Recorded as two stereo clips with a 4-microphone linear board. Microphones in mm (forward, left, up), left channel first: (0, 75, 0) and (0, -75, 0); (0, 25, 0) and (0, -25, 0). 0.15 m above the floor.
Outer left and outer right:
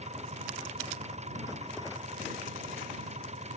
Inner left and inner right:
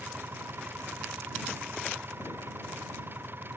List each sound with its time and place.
0.0 s an engine running: 45° right (ahead or behind)